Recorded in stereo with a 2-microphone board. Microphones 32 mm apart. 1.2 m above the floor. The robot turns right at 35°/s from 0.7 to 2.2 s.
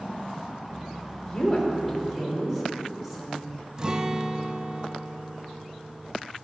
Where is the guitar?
25° right (ahead or behind), 0.7 m.